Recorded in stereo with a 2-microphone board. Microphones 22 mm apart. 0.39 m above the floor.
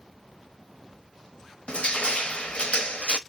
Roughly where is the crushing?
Left.